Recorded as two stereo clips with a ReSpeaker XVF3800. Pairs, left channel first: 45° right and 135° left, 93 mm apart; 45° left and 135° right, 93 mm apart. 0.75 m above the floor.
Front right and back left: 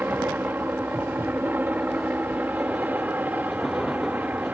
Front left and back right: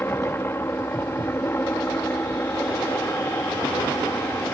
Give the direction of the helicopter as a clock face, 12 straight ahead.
9 o'clock.